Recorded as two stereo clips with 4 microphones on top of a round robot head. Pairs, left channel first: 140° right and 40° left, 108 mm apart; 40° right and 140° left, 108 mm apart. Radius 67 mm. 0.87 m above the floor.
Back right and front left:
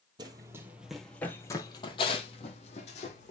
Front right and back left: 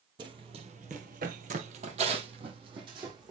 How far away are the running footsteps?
About 1.6 m.